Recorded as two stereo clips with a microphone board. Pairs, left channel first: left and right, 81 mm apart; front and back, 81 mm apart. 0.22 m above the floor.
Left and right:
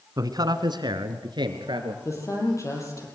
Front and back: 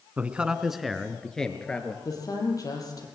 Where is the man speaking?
115° right, 1.8 m; by 1.9 s 75° right, 3.5 m.